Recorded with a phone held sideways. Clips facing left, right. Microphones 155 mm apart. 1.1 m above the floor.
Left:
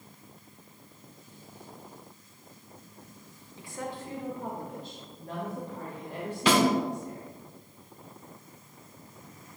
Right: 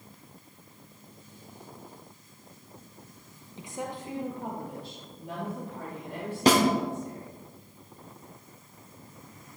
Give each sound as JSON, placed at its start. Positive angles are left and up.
{"t": 3.6, "sound": "a woman speaking", "side_deg": -20, "distance_m": 0.7}
{"t": 6.5, "sound": "a snare drum", "side_deg": -45, "distance_m": 1.2}